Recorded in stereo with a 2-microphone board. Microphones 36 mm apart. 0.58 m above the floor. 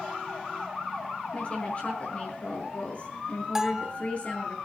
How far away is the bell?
About 0.6 m.